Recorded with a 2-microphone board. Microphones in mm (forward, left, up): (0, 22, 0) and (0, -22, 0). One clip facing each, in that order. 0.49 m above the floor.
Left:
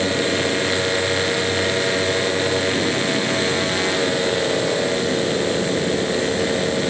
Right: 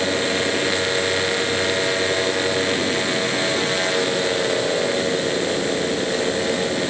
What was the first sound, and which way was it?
Only background noise.